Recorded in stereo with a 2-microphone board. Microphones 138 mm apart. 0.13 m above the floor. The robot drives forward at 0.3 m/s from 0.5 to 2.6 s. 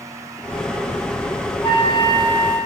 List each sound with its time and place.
1.6 s a flute: 30° left (ahead or behind), 1.2 m; by 2.6 s 35° left (ahead or behind), 1.1 m